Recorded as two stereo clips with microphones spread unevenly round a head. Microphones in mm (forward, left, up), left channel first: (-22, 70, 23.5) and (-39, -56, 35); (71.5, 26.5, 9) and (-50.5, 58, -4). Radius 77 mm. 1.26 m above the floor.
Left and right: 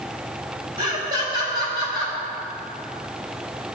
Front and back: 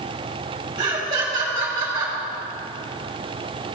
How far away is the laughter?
About 3.5 m.